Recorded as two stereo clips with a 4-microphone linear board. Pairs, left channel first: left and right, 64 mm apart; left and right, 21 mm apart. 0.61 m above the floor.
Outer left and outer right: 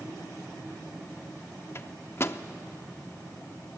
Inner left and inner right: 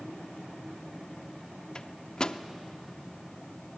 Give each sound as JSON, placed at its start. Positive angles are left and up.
{"t": 1.8, "sound": "a microwave", "side_deg": 40, "distance_m": 0.6}